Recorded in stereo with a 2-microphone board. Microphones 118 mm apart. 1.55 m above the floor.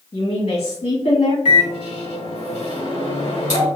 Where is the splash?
No splash in this recording.